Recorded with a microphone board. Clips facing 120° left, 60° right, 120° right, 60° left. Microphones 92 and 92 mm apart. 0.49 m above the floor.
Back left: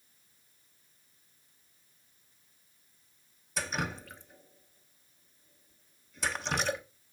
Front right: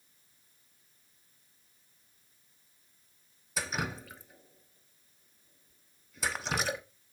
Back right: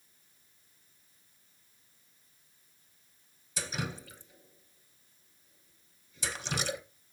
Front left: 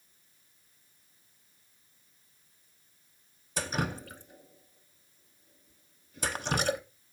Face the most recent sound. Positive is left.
turn(degrees=25)